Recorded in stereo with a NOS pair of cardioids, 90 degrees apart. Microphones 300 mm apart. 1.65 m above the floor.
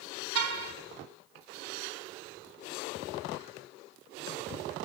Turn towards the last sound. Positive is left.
turn(degrees=-50)